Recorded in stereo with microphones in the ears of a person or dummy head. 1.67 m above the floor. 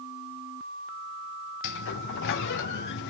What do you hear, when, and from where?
1.6 s a sliding door: 55° left (ahead or behind), 0.7 m